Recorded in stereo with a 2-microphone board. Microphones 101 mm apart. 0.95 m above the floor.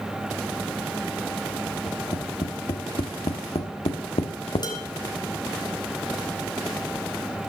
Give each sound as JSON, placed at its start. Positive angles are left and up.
{"t": 1.9, "sound": "tapping", "side_deg": 85, "distance_m": 1.3}
{"t": 4.6, "sound": "dishes clattering", "side_deg": 45, "distance_m": 2.5}